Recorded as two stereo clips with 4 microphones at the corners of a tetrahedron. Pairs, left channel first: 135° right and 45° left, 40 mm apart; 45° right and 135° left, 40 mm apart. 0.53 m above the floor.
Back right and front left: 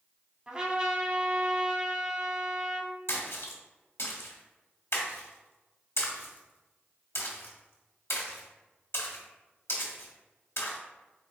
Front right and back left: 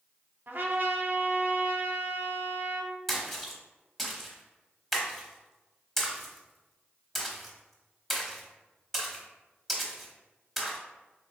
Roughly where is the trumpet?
Left.